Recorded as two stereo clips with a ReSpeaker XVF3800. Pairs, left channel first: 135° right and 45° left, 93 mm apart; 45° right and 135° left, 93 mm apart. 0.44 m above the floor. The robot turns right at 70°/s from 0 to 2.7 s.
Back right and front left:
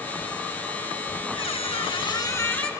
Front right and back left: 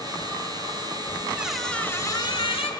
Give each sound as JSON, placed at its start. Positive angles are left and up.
{"t": 1.4, "sound": "a squeak", "azimuth_deg": -150, "distance_m": 0.7}